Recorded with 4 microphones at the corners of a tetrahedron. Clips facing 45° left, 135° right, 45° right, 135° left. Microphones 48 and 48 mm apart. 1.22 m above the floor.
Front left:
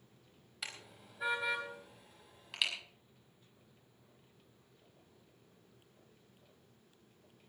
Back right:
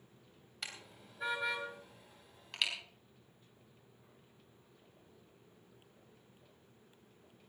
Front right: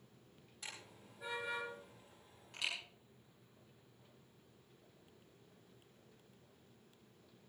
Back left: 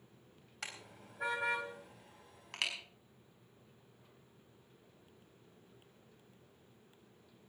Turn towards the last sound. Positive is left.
turn(degrees=135)